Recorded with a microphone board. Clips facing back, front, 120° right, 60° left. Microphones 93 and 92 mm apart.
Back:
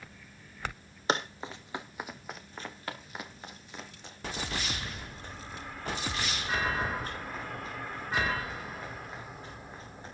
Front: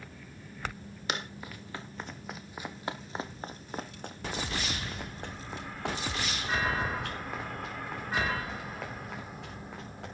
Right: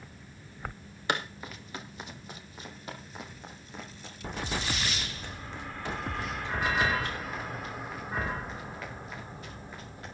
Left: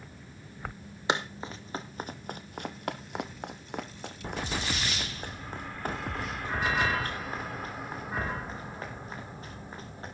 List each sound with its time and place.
1.1 s running footsteps: 125° left, 1.5 m; by 10.1 s 5° left, 5.5 m